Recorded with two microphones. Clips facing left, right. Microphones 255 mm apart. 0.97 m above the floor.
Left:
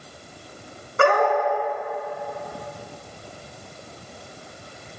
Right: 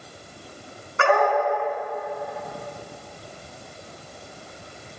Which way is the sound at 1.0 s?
45° left (ahead or behind).